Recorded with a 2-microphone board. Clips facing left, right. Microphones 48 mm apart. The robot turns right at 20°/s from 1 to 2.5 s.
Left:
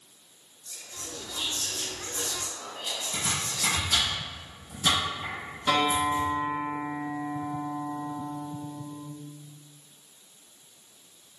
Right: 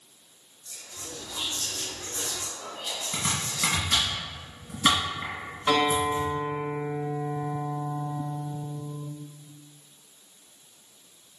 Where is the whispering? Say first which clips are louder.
Even; 5° right (ahead or behind), 1.5 m; by 4.1 s 10° left (ahead or behind), 1.5 m.